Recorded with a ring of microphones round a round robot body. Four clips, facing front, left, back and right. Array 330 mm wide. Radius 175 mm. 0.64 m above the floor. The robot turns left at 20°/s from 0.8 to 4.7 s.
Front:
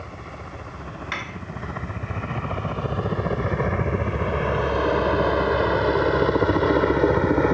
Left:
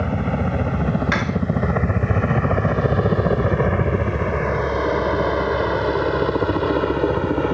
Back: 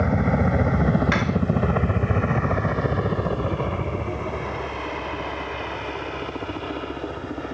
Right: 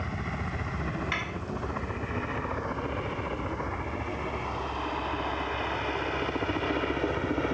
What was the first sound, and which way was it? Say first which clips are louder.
A helicopter: left 12 dB, back 16 dB; 145° left.